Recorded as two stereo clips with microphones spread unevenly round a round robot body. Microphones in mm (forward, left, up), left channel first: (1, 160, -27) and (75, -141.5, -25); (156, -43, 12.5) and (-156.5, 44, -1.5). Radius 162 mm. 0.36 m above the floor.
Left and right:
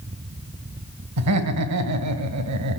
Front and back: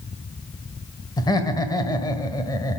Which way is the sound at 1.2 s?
95° right.